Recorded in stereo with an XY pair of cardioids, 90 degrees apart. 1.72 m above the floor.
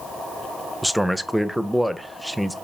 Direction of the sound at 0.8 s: 5° right.